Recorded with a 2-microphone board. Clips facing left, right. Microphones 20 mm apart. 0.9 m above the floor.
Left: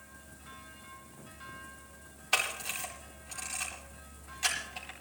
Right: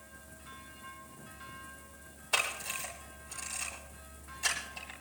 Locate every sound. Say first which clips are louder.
2.3 s a camera shutter: left 1 dB; 55° left (ahead or behind), 9.5 m